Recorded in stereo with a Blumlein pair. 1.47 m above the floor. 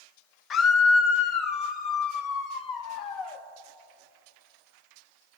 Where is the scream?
25° left, 1.2 m; by 3.4 s 40° left, 3 m.